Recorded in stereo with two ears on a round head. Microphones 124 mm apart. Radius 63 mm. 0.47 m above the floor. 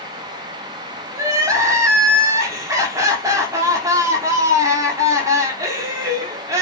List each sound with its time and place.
1.1 s crying: 20° right (ahead or behind), 0.7 m